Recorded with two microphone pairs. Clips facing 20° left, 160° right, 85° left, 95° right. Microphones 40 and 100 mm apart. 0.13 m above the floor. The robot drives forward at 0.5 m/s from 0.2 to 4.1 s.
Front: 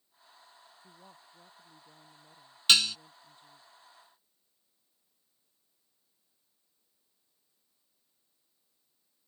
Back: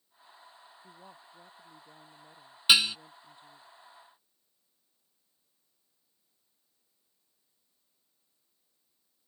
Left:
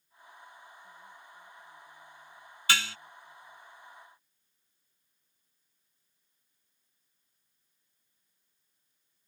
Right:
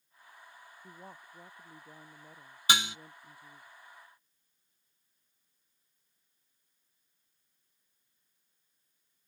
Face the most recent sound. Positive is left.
turn(degrees=-165)